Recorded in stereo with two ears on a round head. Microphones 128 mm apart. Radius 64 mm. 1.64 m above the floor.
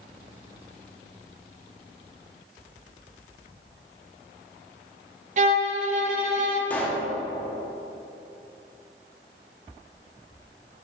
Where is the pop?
10° left (ahead or behind), 1.3 m.